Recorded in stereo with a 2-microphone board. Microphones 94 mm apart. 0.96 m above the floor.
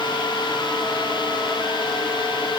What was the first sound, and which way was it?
Only background noise.